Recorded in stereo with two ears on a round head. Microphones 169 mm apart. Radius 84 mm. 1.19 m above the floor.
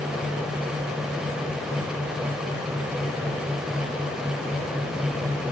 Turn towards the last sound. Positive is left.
No sound to turn to.